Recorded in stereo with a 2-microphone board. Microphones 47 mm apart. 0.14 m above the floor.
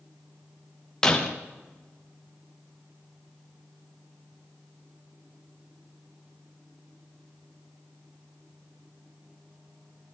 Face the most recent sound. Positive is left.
turn(degrees=15)  # may be behind; listen again after turning